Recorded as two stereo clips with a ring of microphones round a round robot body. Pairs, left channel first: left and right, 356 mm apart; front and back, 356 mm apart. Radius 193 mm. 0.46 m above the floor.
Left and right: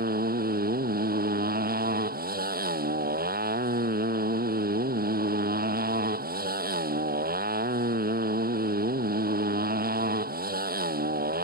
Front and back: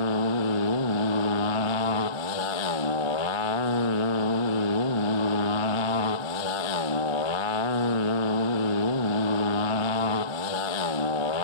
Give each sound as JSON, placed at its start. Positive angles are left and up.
{"t": 0.0, "sound": "a motorcycle", "azimuth_deg": -25}